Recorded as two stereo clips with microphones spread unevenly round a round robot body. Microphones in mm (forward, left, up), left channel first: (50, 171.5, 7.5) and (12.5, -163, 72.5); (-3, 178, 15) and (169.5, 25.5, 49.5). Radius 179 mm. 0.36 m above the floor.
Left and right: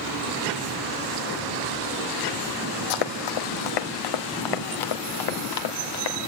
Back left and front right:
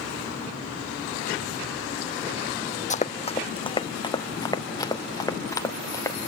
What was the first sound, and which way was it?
Running footsteps, 75° left.